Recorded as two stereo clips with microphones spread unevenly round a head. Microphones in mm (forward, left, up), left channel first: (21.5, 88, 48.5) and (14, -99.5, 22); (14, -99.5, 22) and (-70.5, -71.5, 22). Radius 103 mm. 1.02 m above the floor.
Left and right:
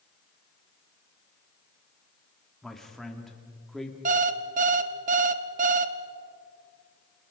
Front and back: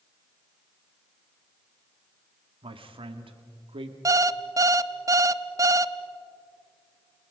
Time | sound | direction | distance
2.6 | a man speaking | 175° left | 1.9 m
4.0 | an alarm clock | 150° right | 0.8 m